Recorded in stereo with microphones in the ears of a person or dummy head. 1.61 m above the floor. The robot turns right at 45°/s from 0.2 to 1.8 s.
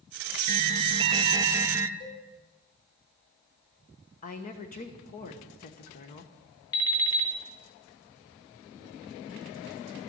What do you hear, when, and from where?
0.5 s an alarm: 85° right, 0.7 m; by 1.9 s 25° right, 0.7 m
2.0 s a cowbell: 45° left (ahead or behind), 5.5 m
4.2 s a woman speaking: 45° left (ahead or behind), 1.1 m
6.7 s an alarm clock: 20° left (ahead or behind), 0.9 m